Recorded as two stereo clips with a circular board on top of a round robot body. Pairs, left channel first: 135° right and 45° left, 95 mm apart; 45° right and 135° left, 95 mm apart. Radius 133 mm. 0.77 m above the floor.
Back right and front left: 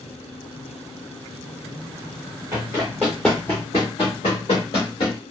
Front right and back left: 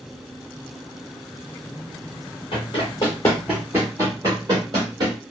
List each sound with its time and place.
2.5 s running footsteps: 15° right, 0.9 m; by 5.2 s straight behind, 1.3 m